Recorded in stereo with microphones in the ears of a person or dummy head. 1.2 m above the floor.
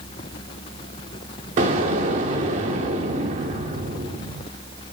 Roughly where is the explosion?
Right.